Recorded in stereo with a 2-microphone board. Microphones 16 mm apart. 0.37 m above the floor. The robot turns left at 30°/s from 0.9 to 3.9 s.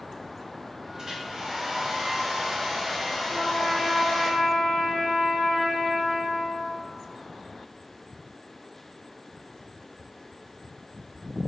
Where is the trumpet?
30° right (ahead or behind), 1.4 m; by 6.7 s 15° right (ahead or behind), 1.4 m.